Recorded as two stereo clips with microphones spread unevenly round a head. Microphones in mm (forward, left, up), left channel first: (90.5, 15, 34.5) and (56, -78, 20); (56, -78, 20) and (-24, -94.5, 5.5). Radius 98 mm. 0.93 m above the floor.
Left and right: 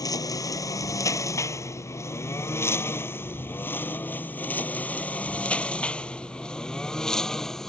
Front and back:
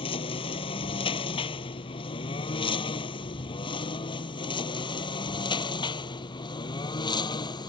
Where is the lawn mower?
20° left; by 7.7 s 15° right.